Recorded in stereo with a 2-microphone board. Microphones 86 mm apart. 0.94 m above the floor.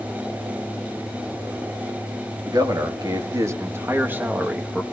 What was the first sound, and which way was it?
A man speaking, 50° right (ahead or behind).